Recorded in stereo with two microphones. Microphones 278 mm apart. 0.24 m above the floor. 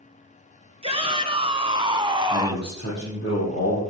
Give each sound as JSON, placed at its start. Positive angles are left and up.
{"t": 0.8, "sound": "a shout", "side_deg": -20, "distance_m": 3.0}
{"t": 2.3, "sound": "a man speaking", "side_deg": 35, "distance_m": 8.5}